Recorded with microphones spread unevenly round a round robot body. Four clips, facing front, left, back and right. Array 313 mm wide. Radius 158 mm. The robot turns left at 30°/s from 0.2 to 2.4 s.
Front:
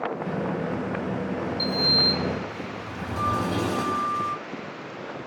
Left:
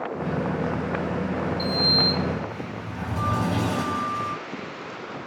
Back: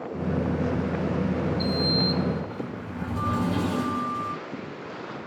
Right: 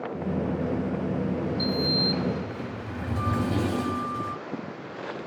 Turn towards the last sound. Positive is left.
turn(degrees=-105)